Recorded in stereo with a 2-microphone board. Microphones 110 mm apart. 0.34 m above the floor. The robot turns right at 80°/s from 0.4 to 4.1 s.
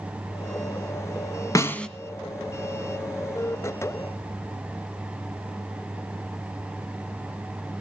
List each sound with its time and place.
1.6 s a snare drum: 30° left (ahead or behind), 1.3 m; by 1.9 s 5° left (ahead or behind), 1.3 m